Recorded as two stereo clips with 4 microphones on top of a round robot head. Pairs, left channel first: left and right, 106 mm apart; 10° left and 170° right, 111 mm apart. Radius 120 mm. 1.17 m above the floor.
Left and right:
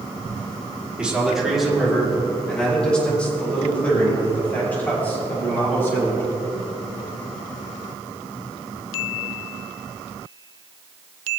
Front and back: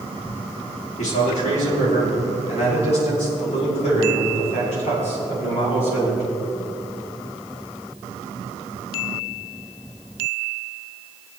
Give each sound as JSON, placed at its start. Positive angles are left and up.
{"t": 1.0, "sound": "a man speaking", "azimuth_deg": -10, "distance_m": 3.5}